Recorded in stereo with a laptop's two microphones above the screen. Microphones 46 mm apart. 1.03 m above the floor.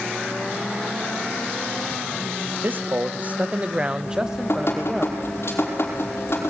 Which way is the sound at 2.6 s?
45° right (ahead or behind).